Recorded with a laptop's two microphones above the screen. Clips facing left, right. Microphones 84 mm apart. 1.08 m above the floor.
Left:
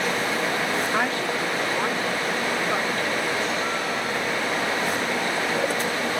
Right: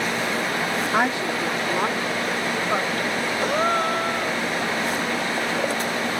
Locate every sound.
0.9 s a woman speaking: 20° right (ahead or behind)
3.4 s a gasp: 55° right (ahead or behind)